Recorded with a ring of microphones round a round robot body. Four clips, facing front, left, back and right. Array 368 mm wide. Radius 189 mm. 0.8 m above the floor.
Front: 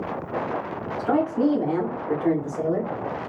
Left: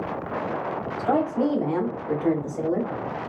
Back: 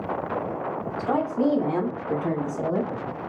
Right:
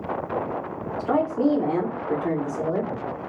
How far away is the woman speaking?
About 2 m.